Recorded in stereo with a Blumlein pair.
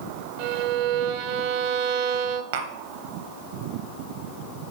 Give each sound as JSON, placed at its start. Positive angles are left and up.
{"t": 0.4, "sound": "a violin", "azimuth_deg": -45, "distance_m": 0.7}
{"t": 2.5, "sound": "tapping", "azimuth_deg": -55, "distance_m": 1.1}